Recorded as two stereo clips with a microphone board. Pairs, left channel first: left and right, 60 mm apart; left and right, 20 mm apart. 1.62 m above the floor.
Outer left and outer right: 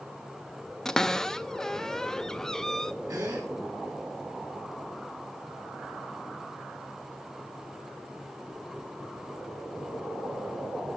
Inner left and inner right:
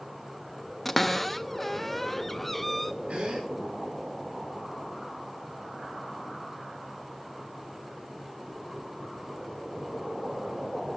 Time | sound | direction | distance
0.8 | a cupboard door | 5° left (ahead or behind) | 0.5 m
3.1 | a gasp | 70° right (ahead or behind) | 7.5 m